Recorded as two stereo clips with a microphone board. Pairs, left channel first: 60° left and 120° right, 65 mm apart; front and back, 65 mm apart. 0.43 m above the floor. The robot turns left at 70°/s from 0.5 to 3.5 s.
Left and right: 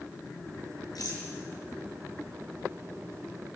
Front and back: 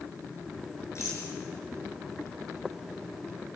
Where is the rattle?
45° left, 7 m; by 1.2 s 25° left, 7 m.